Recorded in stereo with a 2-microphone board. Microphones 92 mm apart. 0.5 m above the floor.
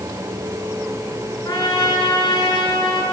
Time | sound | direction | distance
1.4 | a trumpet | 55° left (ahead or behind) | 4.5 m